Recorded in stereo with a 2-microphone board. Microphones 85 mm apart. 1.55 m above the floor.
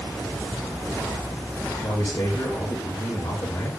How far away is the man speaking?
About 3 m.